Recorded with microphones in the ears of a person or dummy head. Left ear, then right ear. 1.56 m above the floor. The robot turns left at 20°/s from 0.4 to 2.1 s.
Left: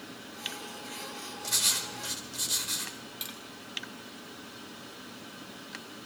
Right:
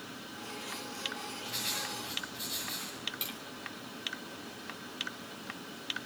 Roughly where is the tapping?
Centre.